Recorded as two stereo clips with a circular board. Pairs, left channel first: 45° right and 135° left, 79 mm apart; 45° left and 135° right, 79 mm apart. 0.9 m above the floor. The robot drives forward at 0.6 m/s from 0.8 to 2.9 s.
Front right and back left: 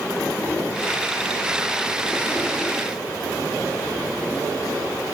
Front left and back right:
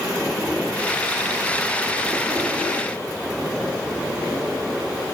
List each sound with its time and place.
Only background noise.